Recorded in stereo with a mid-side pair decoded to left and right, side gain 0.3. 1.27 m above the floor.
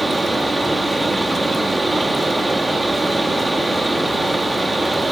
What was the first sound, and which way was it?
A fan, 20° right.